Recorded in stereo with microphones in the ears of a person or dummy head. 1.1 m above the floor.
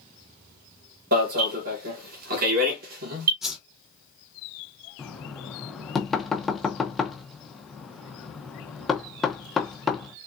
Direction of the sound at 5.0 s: Centre (ahead or behind).